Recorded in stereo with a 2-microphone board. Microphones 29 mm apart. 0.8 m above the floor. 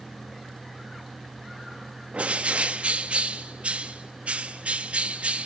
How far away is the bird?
About 1.0 m.